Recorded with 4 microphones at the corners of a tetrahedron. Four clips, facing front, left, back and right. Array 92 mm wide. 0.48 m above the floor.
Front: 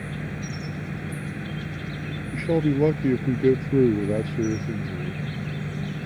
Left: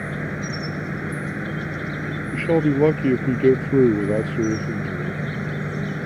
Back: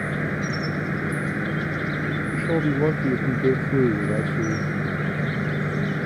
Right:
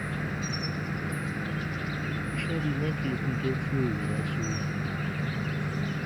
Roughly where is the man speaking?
Left.